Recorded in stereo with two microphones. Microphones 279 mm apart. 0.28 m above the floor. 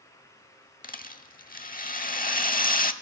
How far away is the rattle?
About 0.7 m.